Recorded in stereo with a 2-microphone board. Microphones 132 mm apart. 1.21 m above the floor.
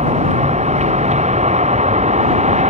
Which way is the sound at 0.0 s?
60° right (ahead or behind).